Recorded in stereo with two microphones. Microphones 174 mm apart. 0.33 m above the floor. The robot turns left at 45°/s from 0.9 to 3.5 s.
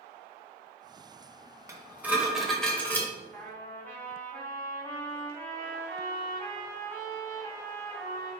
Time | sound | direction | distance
1.7 | dishes clattering | 15° right (ahead or behind) | 0.8 m
3.3 | a trumpet | 5° left (ahead or behind) | 1.8 m